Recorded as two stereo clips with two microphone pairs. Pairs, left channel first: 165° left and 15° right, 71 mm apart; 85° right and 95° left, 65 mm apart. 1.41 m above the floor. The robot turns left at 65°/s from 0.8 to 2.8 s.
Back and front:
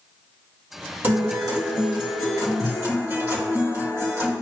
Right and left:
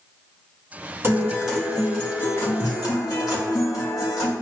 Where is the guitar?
45° left, 3 m; by 4.3 s 65° right, 3 m.